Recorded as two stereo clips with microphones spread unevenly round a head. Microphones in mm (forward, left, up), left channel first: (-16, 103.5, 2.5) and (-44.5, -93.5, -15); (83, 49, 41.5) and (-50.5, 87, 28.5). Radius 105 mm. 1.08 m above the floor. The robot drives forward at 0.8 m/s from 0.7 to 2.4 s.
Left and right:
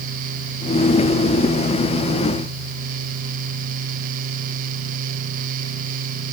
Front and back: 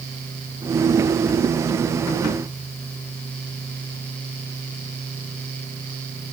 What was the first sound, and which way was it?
Only background noise.